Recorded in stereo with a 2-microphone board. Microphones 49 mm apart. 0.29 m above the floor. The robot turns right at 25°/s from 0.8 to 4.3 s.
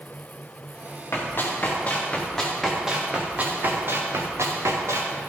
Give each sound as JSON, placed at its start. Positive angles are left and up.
{"t": 1.1, "sound": "running footsteps", "side_deg": 55, "distance_m": 4.0}